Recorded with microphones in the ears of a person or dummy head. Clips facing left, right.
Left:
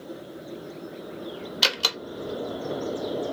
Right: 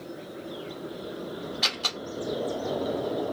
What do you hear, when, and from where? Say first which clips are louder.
1.6 s a door slam: left 4 dB; 40° left (ahead or behind), 0.9 m